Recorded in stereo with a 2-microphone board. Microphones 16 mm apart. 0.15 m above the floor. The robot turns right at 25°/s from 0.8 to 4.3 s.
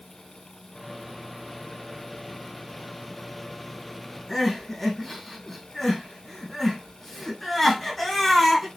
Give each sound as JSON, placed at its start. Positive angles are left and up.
{"t": 4.3, "sound": "crying", "side_deg": 0, "distance_m": 2.5}